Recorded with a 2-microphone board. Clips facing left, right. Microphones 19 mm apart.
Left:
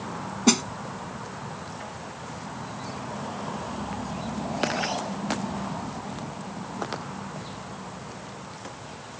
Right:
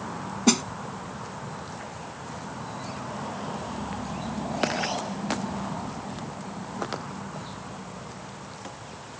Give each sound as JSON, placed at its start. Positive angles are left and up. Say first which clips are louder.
{"t": 0.5, "sound": "a snare drum", "louder": "left 1 dB", "side_deg": 5}